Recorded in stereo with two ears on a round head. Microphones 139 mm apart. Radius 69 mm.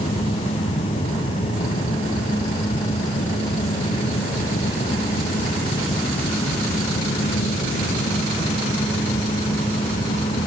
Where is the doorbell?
I don't hear a doorbell.